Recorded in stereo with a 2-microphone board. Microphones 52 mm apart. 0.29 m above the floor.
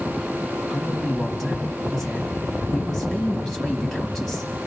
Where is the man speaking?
10° left (ahead or behind), 2 m.